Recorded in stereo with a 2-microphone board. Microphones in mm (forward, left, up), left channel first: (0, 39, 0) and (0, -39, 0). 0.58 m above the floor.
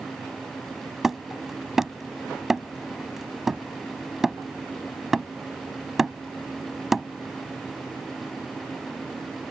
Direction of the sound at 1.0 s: 5° right (ahead or behind).